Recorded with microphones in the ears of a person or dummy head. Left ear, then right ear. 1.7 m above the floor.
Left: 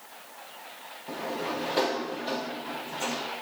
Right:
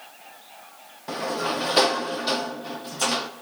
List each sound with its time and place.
1.1 s a sliding door: 40° right (ahead or behind), 0.7 m